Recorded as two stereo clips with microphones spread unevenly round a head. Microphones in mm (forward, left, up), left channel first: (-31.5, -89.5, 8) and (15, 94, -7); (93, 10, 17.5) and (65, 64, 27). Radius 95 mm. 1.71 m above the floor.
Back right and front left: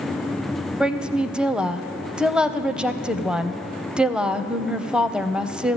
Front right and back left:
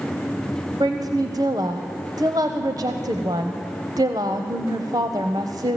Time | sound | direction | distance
0.8 | a woman speaking | 165° left | 0.6 m